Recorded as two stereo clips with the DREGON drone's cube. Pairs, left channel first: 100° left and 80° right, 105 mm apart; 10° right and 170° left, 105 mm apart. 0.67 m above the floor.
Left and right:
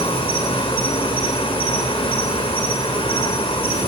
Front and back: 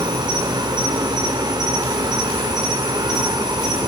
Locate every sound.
0.0 s an insect: 125° left, 3.5 m